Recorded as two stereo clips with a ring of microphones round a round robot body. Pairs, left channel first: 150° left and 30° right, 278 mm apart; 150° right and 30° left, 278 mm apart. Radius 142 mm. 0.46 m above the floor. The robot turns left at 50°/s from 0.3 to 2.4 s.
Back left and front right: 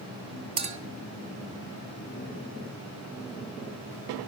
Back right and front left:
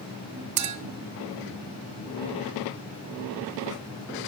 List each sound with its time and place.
0.6 s a clink: 40° left, 1.0 m; by 0.8 s 30° left, 1.0 m